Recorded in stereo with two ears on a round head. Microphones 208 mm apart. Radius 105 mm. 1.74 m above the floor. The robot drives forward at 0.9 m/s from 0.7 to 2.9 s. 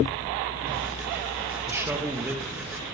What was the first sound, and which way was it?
A man speaking, 10° right (ahead or behind).